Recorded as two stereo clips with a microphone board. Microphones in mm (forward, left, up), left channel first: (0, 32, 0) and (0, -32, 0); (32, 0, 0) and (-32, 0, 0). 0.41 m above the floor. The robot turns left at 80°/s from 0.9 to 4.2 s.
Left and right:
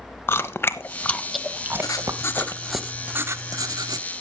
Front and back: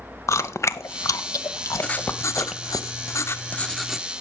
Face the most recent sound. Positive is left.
turn(degrees=-115)